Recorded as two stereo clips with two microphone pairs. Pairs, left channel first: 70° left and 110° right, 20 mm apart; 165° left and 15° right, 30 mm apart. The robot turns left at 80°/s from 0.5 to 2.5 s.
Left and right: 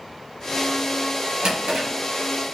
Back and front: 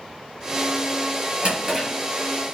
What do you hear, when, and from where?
1.4 s a drawer: 70° right, 1.6 m; by 1.9 s 105° right, 1.6 m